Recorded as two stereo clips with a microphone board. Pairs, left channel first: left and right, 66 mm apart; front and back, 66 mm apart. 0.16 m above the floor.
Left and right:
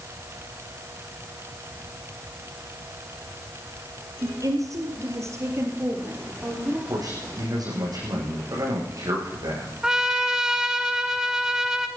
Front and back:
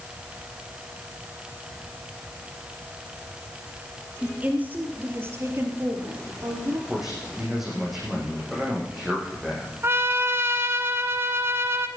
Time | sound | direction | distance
4.2 | a woman speaking | 110° right | 3 m
6.9 | a man speaking | 95° right | 8 m
9.8 | a trumpet | 165° right | 1.1 m